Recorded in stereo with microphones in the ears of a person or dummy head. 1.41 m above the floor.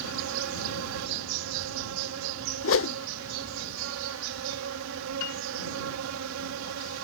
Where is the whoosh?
60° left (ahead or behind).